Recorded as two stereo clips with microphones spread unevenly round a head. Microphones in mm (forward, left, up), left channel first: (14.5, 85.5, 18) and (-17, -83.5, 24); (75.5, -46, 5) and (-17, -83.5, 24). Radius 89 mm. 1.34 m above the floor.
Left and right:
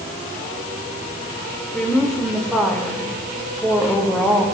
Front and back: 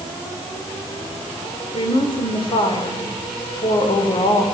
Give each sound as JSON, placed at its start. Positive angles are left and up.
{"t": 1.7, "sound": "a woman speaking", "azimuth_deg": -5, "distance_m": 4.5}